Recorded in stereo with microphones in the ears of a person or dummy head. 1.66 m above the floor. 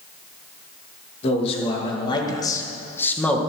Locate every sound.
1.2 s a man speaking: 35° left (ahead or behind), 2.5 m; by 3.4 s 5° left (ahead or behind), 1.8 m